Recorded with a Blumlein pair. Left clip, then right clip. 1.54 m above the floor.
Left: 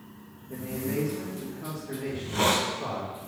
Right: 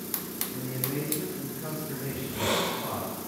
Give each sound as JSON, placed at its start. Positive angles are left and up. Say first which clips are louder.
{"t": 0.5, "sound": "a man speaking", "louder": "left 4 dB", "azimuth_deg": 60, "distance_m": 1.9}
{"t": 2.1, "sound": "a hiss", "louder": "left 5 dB", "azimuth_deg": 50, "distance_m": 1.2}